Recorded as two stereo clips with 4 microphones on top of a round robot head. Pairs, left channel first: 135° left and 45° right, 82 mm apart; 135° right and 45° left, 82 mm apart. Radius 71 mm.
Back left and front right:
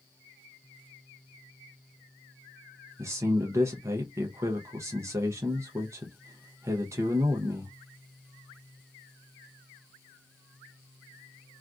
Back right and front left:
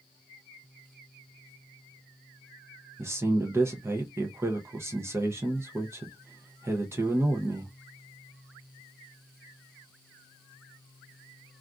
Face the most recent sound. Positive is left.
turn(degrees=-5)